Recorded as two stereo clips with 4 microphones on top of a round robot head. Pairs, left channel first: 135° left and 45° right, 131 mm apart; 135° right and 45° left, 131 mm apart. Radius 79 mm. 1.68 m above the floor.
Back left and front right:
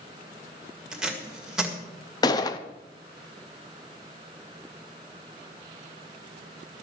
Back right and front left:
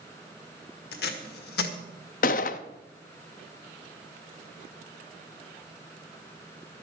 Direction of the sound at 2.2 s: 165° right.